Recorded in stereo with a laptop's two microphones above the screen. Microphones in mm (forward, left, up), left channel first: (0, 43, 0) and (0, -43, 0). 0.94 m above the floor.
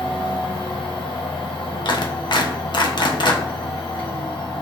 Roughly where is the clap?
Left.